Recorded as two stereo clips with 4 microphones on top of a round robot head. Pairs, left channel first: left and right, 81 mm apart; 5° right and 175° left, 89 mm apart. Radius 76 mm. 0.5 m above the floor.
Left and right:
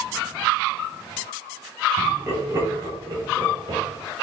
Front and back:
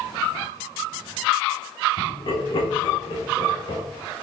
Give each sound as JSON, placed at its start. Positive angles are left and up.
{"t": 2.0, "sound": "laughter", "azimuth_deg": -30, "distance_m": 3.0}